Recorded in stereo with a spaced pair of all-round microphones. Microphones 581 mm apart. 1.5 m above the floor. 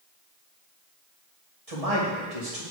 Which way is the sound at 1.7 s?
70° right (ahead or behind).